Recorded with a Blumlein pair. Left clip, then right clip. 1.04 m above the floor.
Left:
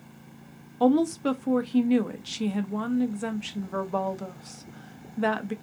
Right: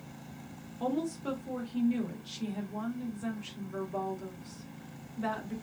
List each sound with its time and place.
0.8 s a woman speaking: 60° left, 0.7 m